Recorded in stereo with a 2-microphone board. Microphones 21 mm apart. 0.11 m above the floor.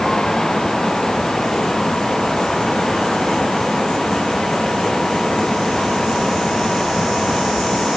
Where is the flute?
No flute in this recording.